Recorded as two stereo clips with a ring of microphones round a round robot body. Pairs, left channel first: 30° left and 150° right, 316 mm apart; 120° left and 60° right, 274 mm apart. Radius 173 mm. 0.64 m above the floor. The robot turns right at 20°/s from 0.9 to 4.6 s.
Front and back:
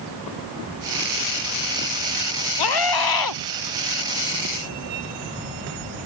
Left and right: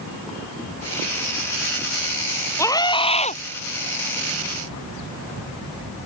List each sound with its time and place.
2.6 s a scream: 40° left; by 3.4 s 55° left